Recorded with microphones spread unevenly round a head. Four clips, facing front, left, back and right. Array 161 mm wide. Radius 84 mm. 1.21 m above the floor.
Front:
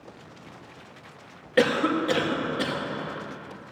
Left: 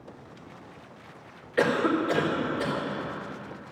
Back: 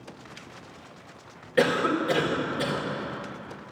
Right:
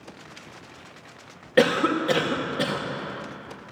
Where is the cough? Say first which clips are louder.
Right 3 dB, front 1 dB; 70° right, 2 m.